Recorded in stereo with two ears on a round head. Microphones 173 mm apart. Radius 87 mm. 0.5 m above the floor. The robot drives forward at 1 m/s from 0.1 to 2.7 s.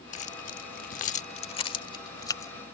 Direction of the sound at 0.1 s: 35° left (ahead or behind).